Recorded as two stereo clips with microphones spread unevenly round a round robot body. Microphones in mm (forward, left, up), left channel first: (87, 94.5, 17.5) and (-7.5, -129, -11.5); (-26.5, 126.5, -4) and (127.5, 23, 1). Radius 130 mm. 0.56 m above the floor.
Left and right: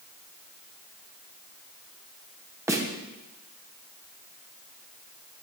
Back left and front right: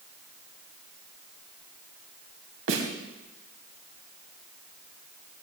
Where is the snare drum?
35° right, 3 m.